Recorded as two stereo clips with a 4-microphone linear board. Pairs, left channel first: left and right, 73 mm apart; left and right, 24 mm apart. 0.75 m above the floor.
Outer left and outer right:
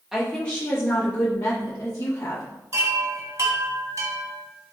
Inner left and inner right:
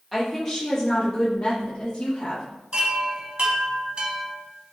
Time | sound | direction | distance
0.1 | a woman speaking | 10° right (ahead or behind) | 0.9 m
2.7 | a chime | 45° right (ahead or behind) | 0.8 m